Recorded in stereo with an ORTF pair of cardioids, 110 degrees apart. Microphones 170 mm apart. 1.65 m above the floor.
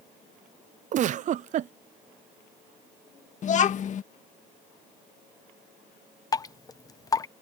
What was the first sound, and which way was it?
A giggle, 50° right.